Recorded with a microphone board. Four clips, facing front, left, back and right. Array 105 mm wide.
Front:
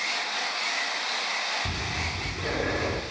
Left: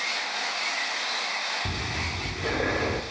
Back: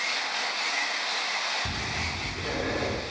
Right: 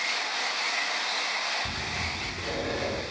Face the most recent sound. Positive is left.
turn(degrees=80)